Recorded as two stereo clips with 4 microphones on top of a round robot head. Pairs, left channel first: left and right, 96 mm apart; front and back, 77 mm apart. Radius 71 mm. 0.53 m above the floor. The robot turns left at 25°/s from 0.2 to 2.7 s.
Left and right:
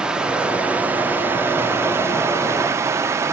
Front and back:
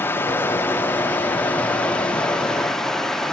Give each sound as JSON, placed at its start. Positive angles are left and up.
{"t": 0.0, "sound": "running water", "azimuth_deg": -20, "distance_m": 0.8}